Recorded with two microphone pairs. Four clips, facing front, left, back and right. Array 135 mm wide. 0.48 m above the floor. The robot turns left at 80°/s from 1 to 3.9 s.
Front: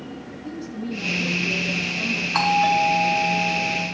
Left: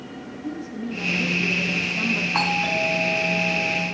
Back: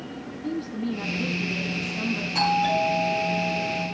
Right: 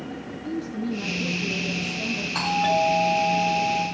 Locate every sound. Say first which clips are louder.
0.4 s a woman speaking: right 2 dB, back 3 dB; straight behind, 3 m; by 2.2 s 80° left, 3 m
2.3 s a doorbell: right 5 dB, front 4 dB; 35° left, 5.5 m; by 3.9 s 90° right, 5.5 m